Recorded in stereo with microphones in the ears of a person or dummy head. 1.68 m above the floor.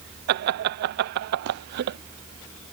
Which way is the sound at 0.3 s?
50° right (ahead or behind).